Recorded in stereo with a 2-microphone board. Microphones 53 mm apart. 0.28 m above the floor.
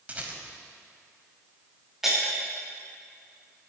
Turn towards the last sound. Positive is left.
turn(degrees=-5)  # may be behind; listen again after turning